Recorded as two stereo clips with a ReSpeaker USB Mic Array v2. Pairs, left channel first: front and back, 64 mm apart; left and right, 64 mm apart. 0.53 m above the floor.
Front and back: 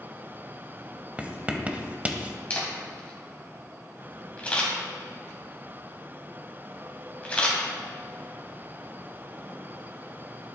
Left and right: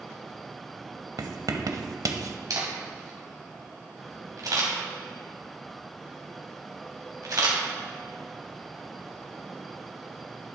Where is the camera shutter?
70° right, 2.5 m.